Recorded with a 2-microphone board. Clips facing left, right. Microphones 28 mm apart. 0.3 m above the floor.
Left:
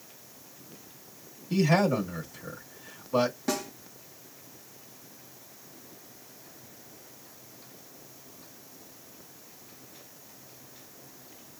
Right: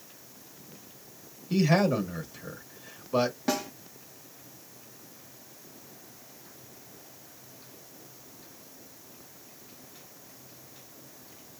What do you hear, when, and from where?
1.5 s a man speaking: 10° right (ahead or behind), 1.1 m
3.5 s a snare drum: 25° right (ahead or behind), 1.4 m